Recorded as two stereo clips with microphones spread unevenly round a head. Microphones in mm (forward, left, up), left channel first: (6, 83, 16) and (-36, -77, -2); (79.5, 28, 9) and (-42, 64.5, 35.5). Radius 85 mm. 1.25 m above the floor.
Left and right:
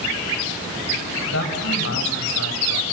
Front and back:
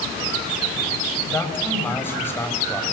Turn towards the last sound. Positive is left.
turn(degrees=55)